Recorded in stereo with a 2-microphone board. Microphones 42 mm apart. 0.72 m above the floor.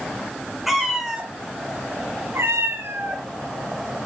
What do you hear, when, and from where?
0.7 s a cat meowing: 5° right (ahead or behind), 2 m; by 3.2 s 60° right (ahead or behind), 1.9 m